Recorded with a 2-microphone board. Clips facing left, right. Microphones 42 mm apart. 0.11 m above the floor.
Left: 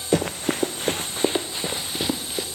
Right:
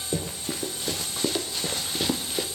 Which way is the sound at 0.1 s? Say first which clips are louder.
Left 9 dB; 60° left (ahead or behind).